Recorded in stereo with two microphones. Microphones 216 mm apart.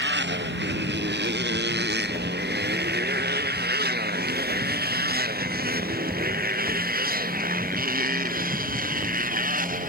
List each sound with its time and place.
0.0 s a motorcycle: 55° right (ahead or behind); by 9.9 s 40° right (ahead or behind)